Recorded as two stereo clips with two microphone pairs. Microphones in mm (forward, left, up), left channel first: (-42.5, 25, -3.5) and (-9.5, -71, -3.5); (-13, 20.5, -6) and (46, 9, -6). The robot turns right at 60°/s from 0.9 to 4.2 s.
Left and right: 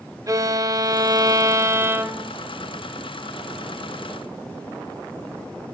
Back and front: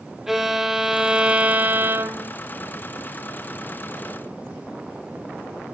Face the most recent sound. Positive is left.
turn(degrees=105)